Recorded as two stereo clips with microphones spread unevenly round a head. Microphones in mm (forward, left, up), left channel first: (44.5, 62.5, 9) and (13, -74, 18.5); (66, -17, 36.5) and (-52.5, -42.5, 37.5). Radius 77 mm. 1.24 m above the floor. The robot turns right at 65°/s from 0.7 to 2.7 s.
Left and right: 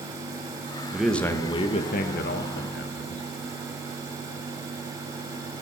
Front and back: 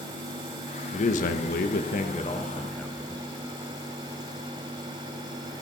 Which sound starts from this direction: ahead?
A man speaking, at 0.9 s.